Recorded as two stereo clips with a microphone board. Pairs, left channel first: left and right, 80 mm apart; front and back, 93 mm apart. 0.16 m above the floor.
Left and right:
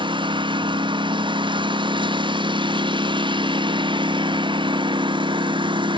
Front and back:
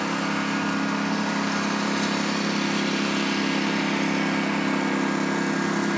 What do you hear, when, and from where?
0.0 s a lawn mower: 90° right